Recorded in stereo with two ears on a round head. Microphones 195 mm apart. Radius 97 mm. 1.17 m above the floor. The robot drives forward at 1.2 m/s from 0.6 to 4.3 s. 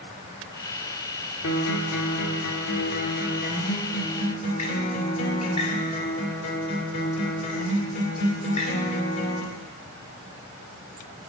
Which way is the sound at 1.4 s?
70° left (ahead or behind).